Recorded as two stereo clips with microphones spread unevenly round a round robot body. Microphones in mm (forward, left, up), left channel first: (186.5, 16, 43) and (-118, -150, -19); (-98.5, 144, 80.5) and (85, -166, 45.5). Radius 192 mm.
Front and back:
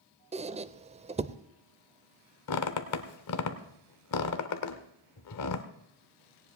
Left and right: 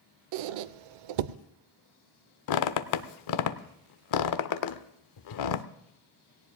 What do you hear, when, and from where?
0.3 s a squeak: 75° right, 0.5 m
2.5 s a squeak: 80° left, 0.6 m